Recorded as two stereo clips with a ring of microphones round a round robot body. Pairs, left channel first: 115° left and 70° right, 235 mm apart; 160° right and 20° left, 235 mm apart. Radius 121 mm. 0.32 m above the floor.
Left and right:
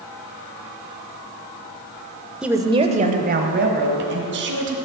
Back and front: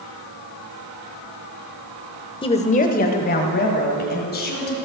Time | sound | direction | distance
2.4 | a woman speaking | 150° right | 0.9 m